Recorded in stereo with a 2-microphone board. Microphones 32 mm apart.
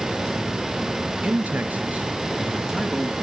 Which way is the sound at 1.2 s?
65° right (ahead or behind).